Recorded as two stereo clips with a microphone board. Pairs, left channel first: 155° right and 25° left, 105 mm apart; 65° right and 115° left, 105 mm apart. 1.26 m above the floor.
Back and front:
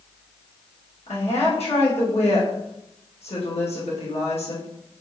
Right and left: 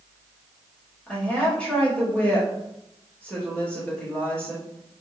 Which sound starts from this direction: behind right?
A woman speaking, at 1.1 s.